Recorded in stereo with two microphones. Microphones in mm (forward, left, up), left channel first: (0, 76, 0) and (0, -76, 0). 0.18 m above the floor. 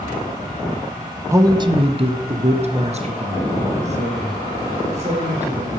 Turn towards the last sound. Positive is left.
turn(degrees=-45)  # may be behind; listen again after turning